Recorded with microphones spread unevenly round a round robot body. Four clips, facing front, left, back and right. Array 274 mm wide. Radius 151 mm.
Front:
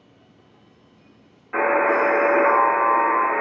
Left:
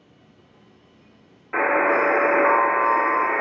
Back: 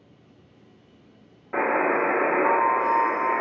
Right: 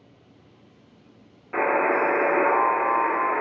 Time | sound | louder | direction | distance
1.5 | a buzzer | left 2 dB, front 4 dB | 140° left | 0.8 m